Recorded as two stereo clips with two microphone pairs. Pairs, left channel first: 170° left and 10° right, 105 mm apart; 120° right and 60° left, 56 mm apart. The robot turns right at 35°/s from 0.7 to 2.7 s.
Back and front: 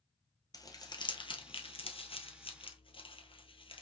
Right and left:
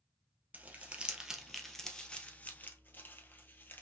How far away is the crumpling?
About 1.3 m.